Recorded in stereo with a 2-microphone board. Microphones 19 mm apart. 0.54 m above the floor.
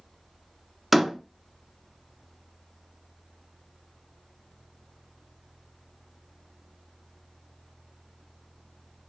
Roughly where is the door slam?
Centre.